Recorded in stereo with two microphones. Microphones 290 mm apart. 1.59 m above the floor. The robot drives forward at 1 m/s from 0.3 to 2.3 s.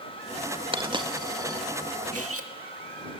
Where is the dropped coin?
15° right (ahead or behind), 0.9 m; by 1.6 s 10° right (ahead or behind), 1.5 m.